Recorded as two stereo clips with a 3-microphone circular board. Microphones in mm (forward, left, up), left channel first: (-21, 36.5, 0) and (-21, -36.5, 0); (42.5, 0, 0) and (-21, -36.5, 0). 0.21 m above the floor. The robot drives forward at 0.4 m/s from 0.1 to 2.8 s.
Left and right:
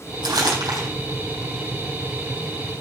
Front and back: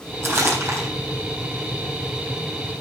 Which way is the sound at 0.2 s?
95° right.